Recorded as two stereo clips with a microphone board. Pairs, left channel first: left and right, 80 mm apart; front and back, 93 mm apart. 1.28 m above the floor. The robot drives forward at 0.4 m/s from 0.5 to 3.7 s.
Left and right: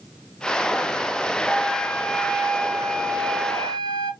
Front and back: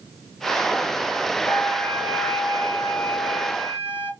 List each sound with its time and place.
1.4 s a flute: 160° left, 3.5 m; by 4.1 s 165° left, 4 m